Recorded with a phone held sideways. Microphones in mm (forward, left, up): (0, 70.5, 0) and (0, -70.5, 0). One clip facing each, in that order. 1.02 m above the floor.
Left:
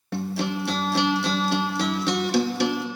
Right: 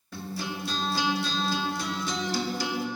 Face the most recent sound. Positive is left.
turn(degrees=75)  # may be behind; listen again after turning